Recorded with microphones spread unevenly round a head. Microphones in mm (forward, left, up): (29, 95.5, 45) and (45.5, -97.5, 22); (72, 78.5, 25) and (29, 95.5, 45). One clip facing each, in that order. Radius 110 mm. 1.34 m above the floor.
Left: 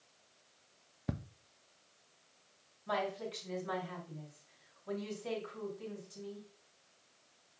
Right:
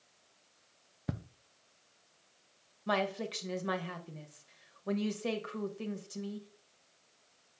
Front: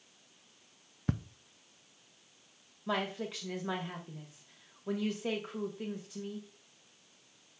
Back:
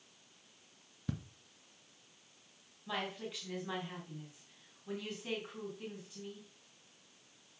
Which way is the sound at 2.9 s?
65° right.